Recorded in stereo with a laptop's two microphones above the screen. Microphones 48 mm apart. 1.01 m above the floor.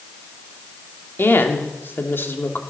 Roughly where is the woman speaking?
Left.